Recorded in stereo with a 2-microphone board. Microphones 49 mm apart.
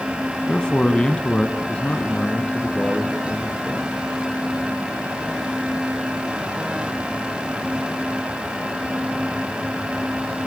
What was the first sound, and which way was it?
A man speaking, 15° left (ahead or behind).